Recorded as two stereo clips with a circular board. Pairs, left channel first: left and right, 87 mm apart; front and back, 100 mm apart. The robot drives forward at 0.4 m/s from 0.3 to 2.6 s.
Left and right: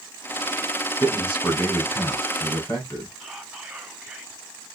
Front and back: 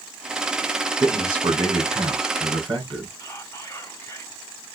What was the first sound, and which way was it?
A man speaking, 145° left.